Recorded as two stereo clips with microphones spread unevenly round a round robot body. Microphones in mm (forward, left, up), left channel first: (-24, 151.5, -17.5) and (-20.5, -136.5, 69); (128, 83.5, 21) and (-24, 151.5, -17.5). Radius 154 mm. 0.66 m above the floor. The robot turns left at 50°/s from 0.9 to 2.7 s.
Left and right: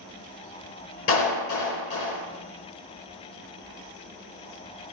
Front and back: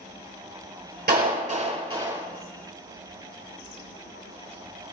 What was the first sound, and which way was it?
A clap, 135° left.